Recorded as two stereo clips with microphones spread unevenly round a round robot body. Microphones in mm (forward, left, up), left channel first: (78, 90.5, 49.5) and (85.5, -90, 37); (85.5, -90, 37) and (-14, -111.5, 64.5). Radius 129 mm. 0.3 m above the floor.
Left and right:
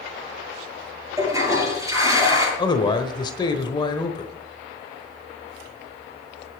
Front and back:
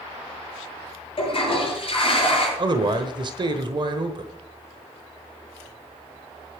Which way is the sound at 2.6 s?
150° left.